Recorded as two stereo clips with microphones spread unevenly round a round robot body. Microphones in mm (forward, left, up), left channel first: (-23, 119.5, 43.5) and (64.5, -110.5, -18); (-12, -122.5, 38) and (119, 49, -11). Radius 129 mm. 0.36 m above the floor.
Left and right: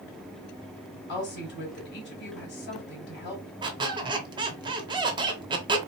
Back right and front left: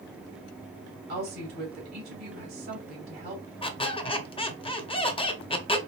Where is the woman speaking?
60° left, 2 m.